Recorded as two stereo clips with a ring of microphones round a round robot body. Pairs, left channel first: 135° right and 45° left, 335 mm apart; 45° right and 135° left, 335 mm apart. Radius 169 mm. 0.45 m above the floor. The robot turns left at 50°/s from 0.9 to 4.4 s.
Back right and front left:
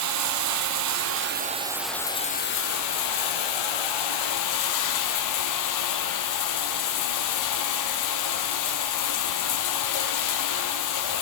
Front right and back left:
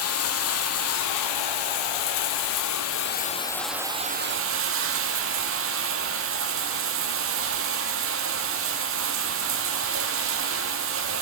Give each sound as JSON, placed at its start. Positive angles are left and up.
{"t": 0.0, "sound": "running water", "azimuth_deg": 5, "distance_m": 1.5}